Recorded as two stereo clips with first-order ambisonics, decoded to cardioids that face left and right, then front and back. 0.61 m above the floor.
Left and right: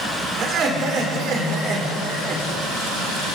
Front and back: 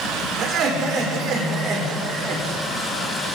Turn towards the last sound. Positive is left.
turn(degrees=-135)